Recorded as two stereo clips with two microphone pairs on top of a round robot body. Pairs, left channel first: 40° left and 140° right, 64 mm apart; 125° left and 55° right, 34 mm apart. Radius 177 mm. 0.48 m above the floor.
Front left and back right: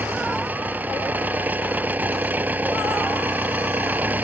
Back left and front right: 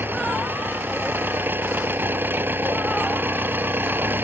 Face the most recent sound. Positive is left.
turn(degrees=-75)